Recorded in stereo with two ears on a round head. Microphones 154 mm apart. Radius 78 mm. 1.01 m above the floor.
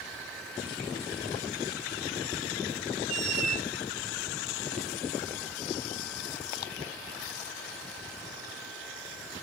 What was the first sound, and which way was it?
A squeak, 40° right (ahead or behind).